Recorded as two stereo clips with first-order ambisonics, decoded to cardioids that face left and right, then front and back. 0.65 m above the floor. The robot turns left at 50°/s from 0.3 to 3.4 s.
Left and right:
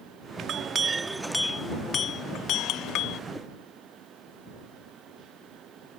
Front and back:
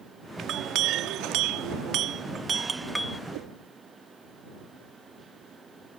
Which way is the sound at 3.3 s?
170° right.